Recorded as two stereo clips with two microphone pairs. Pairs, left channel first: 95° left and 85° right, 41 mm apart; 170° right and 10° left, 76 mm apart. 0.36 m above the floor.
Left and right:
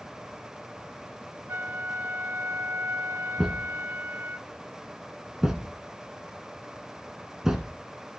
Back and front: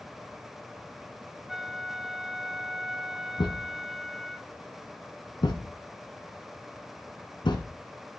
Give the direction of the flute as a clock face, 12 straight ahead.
3 o'clock.